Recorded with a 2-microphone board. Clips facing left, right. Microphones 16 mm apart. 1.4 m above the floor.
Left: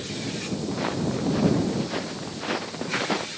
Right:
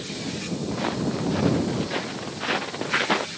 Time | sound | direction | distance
0.7 | footsteps | 5° right (ahead or behind) | ?